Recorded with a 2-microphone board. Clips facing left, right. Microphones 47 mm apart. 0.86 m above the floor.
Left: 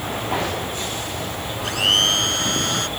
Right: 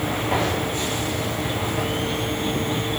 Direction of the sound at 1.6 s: 85° left.